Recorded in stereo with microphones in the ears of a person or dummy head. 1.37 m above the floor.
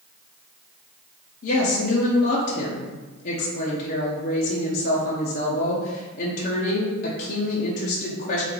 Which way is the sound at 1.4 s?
45° left (ahead or behind).